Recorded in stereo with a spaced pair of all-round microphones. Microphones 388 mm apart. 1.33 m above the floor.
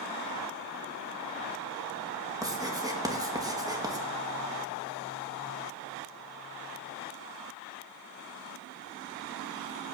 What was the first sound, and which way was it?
Writing, 10° right (ahead or behind).